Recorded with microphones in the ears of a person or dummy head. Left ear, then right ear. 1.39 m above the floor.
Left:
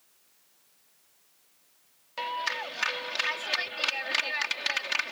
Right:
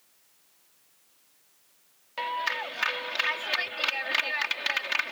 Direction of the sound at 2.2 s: Centre (ahead or behind).